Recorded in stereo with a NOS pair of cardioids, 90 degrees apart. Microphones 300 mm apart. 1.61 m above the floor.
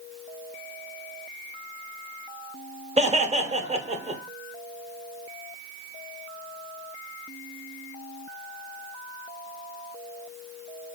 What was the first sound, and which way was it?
Laughter, 20° right.